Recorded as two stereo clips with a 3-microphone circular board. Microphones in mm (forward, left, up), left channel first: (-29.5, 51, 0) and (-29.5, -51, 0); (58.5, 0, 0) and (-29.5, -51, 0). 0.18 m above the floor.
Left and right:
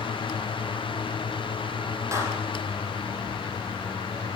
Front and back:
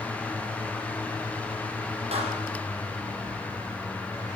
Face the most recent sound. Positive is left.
turn(degrees=-150)